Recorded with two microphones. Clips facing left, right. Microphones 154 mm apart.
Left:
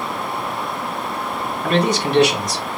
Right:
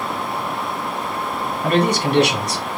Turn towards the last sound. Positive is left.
turn(degrees=-70)  # may be behind; listen again after turning